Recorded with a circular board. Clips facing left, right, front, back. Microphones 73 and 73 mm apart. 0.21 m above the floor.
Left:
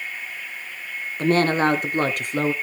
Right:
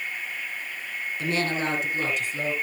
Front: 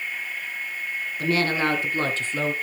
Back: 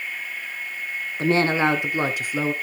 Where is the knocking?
I don't hear knocking.